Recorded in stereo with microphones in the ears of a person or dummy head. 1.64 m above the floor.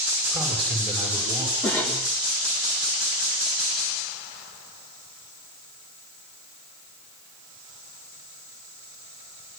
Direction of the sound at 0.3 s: 10° left (ahead or behind).